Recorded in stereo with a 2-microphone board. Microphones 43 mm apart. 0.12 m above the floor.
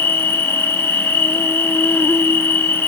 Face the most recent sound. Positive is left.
turn(degrees=65)  # may be behind; listen again after turning